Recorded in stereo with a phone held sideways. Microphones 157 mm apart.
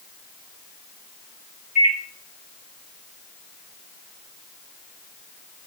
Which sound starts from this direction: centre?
A microwave, at 1.8 s.